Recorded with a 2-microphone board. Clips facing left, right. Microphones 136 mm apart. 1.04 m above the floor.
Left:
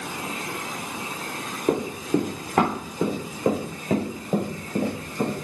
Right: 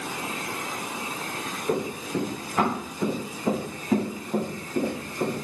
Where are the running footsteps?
60° left (ahead or behind), 4 m; by 5.3 s 70° left (ahead or behind), 5.5 m.